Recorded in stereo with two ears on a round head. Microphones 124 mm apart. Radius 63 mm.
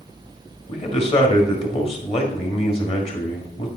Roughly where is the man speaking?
Left.